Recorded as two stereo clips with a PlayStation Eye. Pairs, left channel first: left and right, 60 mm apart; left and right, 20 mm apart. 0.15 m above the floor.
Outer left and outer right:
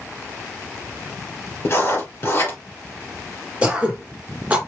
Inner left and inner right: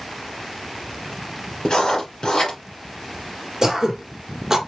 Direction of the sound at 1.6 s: 45° left (ahead or behind).